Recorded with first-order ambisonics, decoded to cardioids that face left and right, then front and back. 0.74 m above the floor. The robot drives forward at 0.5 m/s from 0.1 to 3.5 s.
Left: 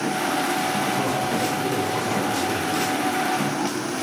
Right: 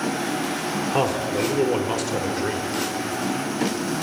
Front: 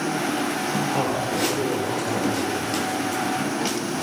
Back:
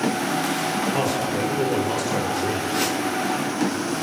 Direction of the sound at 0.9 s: 95° right.